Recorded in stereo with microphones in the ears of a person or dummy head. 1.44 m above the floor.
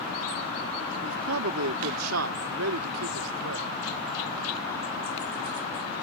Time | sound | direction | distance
1.0 | a man speaking | 70° right (ahead or behind) | ?